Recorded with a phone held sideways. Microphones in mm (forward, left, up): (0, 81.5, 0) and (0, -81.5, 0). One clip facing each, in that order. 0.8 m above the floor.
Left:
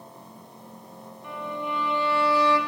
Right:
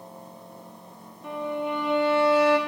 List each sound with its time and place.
1.2 s a violin: 70° right (ahead or behind), 2.5 m